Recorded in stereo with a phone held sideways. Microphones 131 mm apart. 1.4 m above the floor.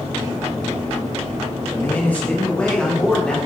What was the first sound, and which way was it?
A man speaking, 20° left (ahead or behind).